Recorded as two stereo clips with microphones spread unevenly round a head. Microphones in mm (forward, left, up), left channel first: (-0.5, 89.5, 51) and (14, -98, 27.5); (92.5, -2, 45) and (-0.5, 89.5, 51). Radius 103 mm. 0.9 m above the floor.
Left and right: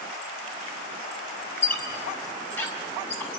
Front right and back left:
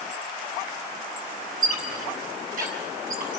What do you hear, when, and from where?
1.6 s a squeak: 175° left, 4 m